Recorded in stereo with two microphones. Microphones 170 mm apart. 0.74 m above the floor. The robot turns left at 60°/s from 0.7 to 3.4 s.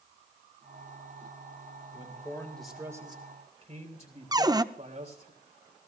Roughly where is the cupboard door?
Right.